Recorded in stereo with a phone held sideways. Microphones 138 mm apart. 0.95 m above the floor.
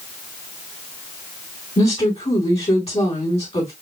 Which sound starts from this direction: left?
A woman speaking, at 1.8 s.